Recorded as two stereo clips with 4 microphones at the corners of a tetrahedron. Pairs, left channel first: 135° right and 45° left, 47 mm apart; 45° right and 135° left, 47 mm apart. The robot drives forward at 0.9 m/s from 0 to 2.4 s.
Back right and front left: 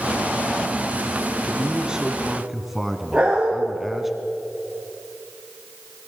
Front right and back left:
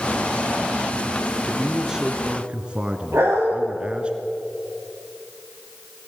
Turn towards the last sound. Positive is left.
turn(degrees=115)